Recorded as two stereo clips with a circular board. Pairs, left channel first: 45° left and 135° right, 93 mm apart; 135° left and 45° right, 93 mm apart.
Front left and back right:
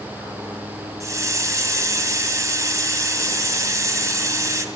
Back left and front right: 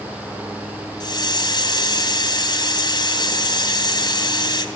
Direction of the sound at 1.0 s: 175° left.